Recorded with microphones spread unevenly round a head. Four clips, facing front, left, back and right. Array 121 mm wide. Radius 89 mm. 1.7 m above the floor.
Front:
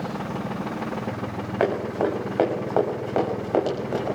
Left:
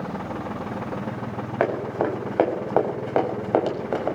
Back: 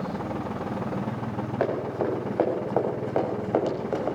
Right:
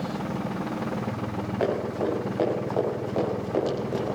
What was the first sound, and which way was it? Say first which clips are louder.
Running footsteps: left 3 dB, front 4 dB; 60° left.